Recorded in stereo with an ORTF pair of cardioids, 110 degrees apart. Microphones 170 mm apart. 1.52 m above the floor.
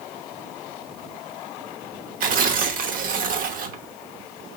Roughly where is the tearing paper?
Ahead right.